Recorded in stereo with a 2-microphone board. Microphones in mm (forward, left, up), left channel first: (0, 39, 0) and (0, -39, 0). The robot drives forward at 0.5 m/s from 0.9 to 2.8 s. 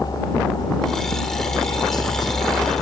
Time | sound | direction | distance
0.0 | a helicopter | 50° left (ahead or behind) | ?